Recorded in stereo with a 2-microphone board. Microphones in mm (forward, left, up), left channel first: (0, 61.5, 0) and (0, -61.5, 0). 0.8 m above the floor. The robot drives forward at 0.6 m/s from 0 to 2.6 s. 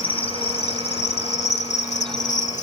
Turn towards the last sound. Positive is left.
turn(degrees=85)